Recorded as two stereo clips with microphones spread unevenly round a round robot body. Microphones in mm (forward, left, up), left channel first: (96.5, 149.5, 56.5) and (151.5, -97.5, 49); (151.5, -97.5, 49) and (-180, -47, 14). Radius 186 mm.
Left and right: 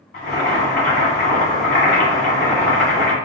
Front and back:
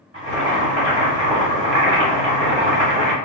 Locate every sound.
0.1 s boiling: 120° left, 2.0 m